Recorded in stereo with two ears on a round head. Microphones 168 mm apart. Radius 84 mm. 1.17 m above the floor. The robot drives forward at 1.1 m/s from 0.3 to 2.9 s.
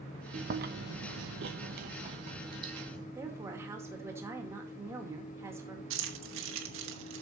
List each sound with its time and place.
0.3 s chewing: 40° right (ahead or behind), 1.2 m; by 3.0 s 25° right (ahead or behind), 2 m
3.1 s a woman speaking: 15° right (ahead or behind), 2 m
5.9 s keys jangling: 75° right (ahead or behind), 1.6 m